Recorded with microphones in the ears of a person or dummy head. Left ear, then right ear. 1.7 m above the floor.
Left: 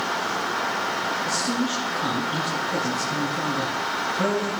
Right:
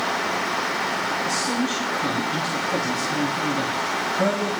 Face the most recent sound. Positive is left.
turn(degrees=5)  # may be behind; listen again after turning